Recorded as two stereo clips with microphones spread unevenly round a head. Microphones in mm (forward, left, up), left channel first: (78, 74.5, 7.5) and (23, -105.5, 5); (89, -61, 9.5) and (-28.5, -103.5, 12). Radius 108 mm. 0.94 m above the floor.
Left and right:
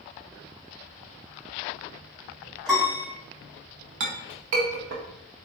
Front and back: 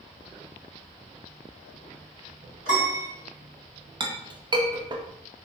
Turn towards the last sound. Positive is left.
turn(degrees=-105)